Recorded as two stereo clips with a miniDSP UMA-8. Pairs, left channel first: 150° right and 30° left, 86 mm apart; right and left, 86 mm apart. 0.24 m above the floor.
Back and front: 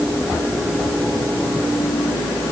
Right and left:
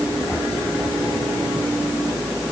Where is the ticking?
I don't hear ticking.